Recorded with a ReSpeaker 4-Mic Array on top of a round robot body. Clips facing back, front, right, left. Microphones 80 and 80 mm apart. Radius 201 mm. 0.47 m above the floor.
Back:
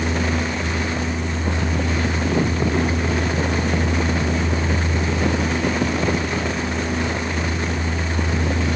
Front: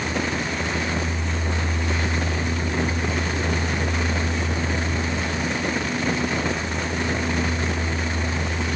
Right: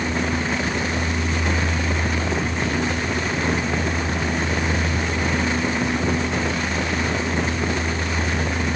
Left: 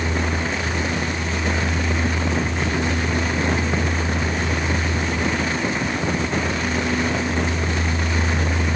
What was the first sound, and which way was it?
Only background noise.